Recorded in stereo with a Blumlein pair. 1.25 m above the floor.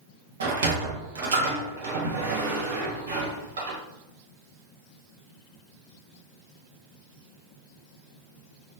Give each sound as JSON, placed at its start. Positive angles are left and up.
{"t": 0.4, "sound": "a sliding door", "azimuth_deg": -65, "distance_m": 0.8}